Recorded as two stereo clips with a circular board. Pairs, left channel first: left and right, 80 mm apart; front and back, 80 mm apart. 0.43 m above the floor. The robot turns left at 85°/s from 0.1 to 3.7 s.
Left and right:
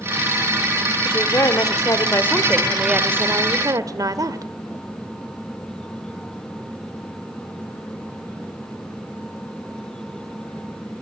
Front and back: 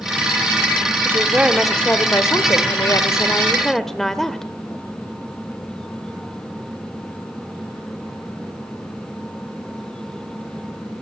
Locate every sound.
1.1 s a woman speaking: 140° left, 1.3 m; by 4.5 s 85° right, 1.3 m